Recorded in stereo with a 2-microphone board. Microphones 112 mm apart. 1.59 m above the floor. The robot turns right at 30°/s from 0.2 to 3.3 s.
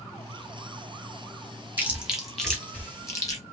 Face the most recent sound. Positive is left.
turn(degrees=30)  # may be behind; listen again after turning